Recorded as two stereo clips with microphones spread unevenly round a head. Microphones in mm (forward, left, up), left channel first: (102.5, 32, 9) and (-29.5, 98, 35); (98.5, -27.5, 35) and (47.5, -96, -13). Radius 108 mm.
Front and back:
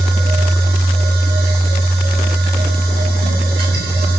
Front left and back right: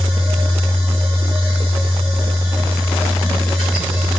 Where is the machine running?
170° left, 1.0 m.